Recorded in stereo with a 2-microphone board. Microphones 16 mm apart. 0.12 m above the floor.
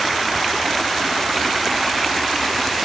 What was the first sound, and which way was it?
Only background noise.